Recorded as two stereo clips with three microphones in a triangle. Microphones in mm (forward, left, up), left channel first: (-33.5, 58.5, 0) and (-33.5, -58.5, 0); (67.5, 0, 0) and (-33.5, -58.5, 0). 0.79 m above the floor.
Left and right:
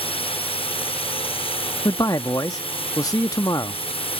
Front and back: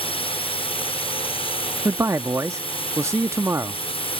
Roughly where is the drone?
Ahead left.